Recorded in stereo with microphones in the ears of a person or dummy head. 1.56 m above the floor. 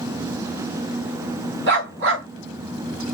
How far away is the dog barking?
About 2 m.